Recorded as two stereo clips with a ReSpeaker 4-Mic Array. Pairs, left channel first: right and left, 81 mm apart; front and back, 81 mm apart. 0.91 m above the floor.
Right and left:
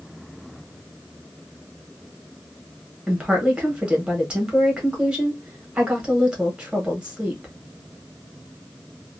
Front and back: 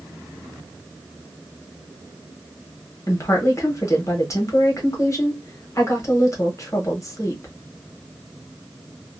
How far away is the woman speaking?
About 1.2 m.